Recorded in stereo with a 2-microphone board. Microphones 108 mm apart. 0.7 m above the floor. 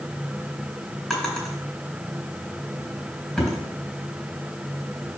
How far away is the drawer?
About 3 m.